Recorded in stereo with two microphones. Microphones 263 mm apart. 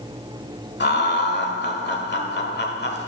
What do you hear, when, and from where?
0.8 s laughter: 40° left (ahead or behind), 1.4 m